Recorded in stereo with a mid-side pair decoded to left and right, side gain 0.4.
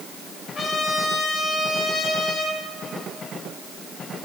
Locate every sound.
0.6 s a trumpet: 65° left, 3.5 m